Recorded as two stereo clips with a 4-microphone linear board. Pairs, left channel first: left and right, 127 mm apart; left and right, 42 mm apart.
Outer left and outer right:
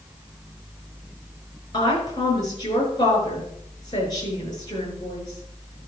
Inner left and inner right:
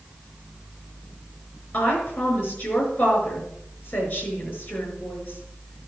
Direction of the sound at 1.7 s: 35° left (ahead or behind).